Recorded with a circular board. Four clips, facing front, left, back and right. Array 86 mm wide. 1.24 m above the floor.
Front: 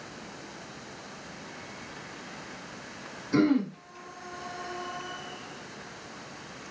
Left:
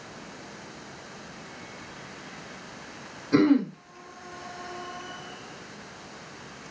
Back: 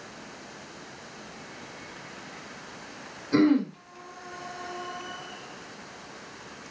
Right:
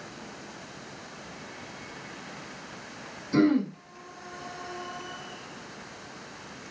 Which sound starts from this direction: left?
Throat clearing, at 3.3 s.